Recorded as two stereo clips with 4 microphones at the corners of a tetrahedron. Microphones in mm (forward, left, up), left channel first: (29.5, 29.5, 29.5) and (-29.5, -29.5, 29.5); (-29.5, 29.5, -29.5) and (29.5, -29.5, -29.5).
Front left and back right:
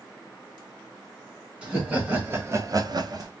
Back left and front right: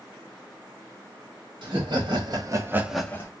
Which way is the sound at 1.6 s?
60° right.